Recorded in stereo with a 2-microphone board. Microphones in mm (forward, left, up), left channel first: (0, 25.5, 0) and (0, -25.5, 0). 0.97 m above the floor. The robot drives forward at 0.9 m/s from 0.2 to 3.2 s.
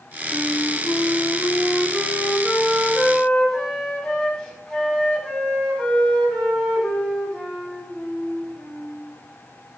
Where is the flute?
40° left (ahead or behind), 0.7 m; by 9.0 s 10° left (ahead or behind), 2.5 m.